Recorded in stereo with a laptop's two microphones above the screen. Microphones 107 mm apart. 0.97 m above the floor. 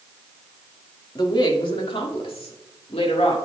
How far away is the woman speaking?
About 2.0 m.